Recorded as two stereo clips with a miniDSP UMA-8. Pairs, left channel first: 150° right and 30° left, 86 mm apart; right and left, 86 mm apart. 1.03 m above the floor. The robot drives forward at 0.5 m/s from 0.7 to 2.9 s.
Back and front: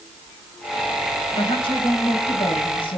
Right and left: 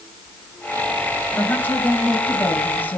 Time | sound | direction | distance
1.3 | a woman speaking | 155° right | 5 m